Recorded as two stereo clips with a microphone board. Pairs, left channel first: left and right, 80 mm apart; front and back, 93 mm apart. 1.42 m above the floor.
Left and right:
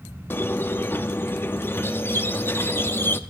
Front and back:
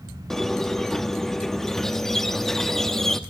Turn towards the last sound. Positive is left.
turn(degrees=80)